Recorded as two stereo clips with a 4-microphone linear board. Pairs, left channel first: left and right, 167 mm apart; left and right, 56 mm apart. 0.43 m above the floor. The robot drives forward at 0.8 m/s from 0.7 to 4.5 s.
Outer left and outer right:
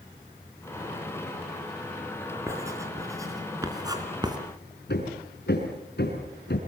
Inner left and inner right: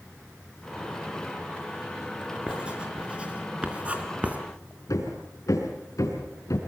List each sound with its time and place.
2.5 s writing: 15° right (ahead or behind), 4.5 m; by 4.4 s 25° right (ahead or behind), 3.5 m
4.9 s hammering: 75° left (ahead or behind), 4.5 m